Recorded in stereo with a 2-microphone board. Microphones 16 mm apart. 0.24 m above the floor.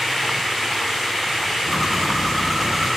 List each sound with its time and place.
1.7 s a bird: 35° right (ahead or behind), 5.5 m